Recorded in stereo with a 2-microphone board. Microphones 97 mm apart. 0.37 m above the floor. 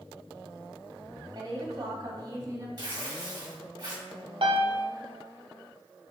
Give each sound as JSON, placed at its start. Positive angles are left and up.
{"t": 1.4, "sound": "a woman speaking", "side_deg": -45, "distance_m": 1.7}
{"t": 2.8, "sound": "tearing paper", "side_deg": -45, "distance_m": 1.5}
{"t": 4.4, "sound": "a piano", "side_deg": -80, "distance_m": 0.5}